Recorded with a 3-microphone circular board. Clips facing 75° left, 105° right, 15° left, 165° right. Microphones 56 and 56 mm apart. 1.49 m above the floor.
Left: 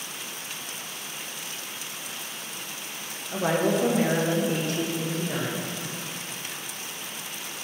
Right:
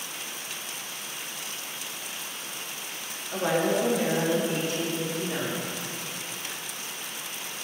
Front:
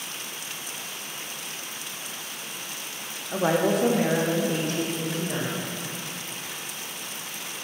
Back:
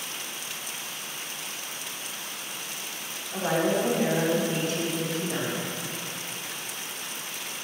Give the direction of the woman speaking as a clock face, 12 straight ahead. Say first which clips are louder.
Left 1 dB, front 3 dB; 12 o'clock.